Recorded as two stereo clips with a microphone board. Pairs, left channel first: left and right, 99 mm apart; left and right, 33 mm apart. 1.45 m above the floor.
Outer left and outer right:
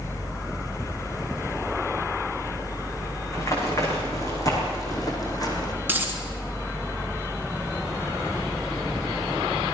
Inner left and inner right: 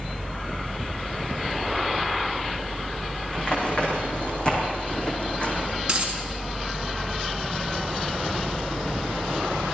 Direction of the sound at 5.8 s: 20° right (ahead or behind).